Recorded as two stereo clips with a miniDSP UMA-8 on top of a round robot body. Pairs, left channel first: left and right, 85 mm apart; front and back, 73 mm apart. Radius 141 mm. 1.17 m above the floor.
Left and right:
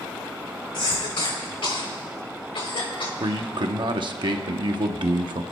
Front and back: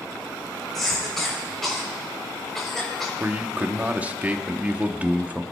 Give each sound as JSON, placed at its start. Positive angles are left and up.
{"t": 0.7, "sound": "a cough", "azimuth_deg": 85, "distance_m": 3.5}
{"t": 3.2, "sound": "a man speaking", "azimuth_deg": -115, "distance_m": 1.0}